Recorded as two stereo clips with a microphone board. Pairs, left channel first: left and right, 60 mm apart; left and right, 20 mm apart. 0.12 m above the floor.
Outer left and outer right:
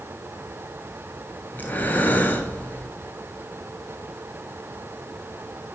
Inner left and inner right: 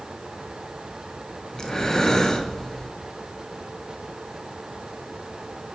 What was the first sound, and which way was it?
Breathing, 30° left (ahead or behind).